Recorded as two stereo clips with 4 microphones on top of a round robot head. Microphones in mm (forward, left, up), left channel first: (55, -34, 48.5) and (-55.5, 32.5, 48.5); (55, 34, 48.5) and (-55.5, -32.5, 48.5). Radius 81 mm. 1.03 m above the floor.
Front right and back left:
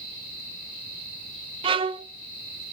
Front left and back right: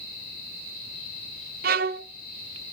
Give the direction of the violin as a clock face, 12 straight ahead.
5 o'clock.